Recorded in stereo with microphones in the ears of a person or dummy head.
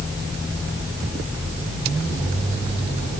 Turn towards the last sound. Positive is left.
No sound to turn to.